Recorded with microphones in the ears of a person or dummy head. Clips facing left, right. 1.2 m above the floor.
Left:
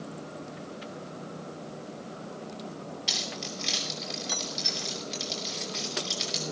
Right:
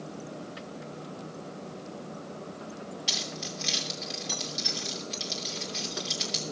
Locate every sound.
3.1 s keys jangling: 5° right (ahead or behind), 2.5 m